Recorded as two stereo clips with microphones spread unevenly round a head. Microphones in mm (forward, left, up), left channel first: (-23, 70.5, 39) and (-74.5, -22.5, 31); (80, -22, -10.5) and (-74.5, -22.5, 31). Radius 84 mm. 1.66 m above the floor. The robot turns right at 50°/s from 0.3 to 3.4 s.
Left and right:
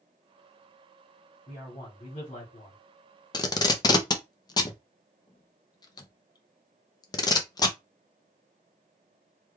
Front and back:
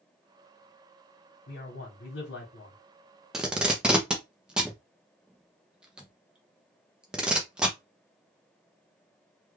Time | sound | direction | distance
1.5 | a man speaking | 20° right | 1.3 m
3.3 | tape being pulled | 100° left | 0.6 m